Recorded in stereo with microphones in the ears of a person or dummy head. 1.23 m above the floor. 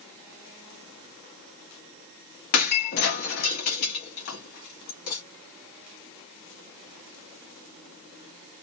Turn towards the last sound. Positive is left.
turn(degrees=45)  # may be behind; listen again after turning